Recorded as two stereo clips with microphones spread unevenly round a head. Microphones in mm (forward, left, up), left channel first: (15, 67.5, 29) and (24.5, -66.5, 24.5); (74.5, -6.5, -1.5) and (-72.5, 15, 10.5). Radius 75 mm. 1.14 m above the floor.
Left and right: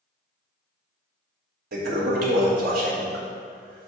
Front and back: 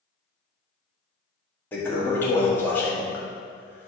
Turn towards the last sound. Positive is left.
turn(degrees=-85)